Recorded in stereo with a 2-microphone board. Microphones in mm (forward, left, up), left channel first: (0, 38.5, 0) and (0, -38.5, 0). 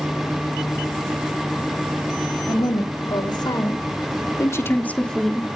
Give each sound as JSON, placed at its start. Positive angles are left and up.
{"t": 2.5, "sound": "a woman speaking", "side_deg": 70, "distance_m": 3.5}